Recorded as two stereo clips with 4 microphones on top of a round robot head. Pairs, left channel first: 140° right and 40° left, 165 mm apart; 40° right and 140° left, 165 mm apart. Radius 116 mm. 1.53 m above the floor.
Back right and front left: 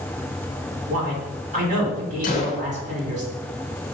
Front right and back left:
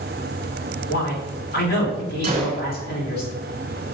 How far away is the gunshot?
About 0.8 m.